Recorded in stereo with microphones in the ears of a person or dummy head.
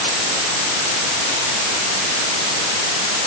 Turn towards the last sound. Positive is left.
No sound to turn to.